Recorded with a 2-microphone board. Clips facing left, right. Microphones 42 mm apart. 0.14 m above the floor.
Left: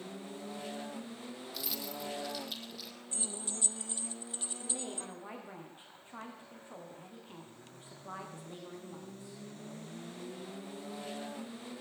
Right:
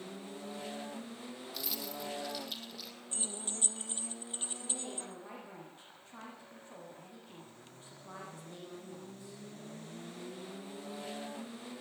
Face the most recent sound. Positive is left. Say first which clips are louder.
# left 3 dB
turn(degrees=25)  # may be behind; listen again after turning